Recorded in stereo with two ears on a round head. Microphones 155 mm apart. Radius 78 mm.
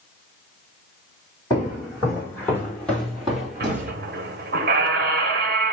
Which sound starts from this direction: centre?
Footsteps, at 1.5 s.